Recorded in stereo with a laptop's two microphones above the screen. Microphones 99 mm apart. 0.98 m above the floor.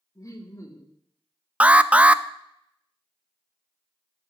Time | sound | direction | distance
0.1 | laughter | 35° left (ahead or behind) | 2 m
1.6 | an alarm | 10° right (ahead or behind) | 0.5 m